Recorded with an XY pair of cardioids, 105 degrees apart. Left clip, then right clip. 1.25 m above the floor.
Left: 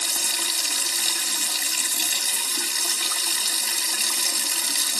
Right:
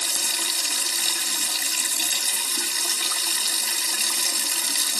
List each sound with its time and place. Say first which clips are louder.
0.0 s running water: even; 5° right, 2.5 m